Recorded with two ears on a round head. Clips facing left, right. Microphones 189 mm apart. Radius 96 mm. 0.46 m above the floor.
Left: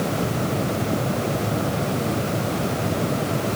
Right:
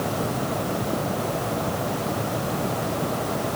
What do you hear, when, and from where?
Only background noise.